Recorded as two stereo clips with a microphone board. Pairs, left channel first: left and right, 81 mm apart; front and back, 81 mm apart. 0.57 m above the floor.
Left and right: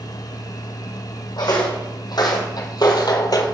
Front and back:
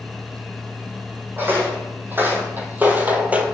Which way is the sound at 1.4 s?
115° left.